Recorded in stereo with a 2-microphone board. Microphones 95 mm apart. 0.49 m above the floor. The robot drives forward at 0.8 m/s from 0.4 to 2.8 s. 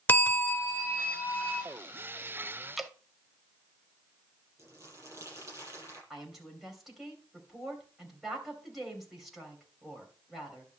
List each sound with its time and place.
0.1 s a bell: 25° left (ahead or behind), 0.9 m; by 1.6 s 10° left (ahead or behind), 1.8 m
2.8 s dripping: centre (ahead or behind), 0.6 m
4.6 s crumpling: 30° right (ahead or behind), 7.5 m
6.1 s a woman speaking: centre (ahead or behind), 3 m